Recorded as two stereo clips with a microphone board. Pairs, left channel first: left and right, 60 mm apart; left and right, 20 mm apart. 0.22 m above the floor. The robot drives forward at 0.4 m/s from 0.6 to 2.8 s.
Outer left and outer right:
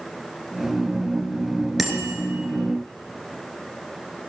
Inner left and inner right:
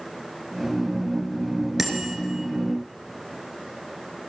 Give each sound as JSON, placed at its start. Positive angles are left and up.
{"t": 1.8, "sound": "a bicycle bell", "side_deg": -5, "distance_m": 2.0}